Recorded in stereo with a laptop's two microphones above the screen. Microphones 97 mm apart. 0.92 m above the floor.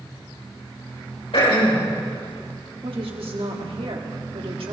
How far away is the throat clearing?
About 4 m.